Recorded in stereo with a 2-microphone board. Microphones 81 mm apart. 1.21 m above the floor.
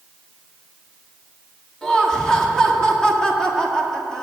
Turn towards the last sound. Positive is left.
turn(degrees=5)  # may be behind; listen again after turning